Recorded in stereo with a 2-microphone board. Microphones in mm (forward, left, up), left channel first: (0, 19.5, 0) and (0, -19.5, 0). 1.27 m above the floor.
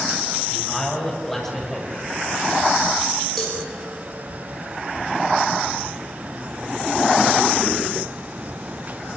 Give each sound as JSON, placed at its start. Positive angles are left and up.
{"t": 0.5, "sound": "a man speaking", "side_deg": 10, "distance_m": 8.5}
{"t": 3.4, "sound": "a cowbell", "side_deg": 5, "distance_m": 6.0}